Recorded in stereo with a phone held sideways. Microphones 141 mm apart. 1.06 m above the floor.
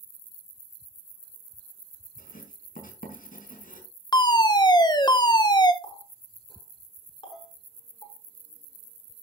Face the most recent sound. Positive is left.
turn(degrees=0)  # may be behind; listen again after turning